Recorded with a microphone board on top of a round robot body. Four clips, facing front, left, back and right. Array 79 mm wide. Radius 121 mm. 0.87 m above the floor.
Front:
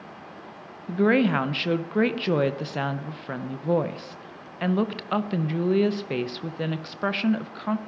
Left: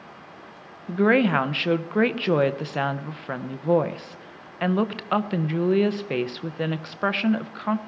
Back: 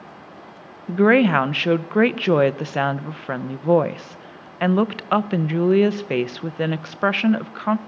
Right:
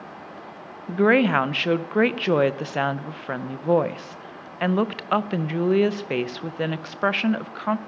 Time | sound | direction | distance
0.9 | a woman speaking | 165° right | 0.7 m